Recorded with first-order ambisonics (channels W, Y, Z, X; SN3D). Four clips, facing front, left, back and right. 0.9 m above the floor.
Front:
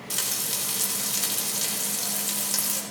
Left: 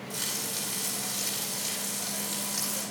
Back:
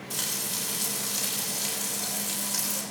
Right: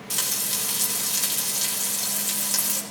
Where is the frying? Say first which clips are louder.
Right 6 dB, front 2 dB; 50° right, 5.5 m.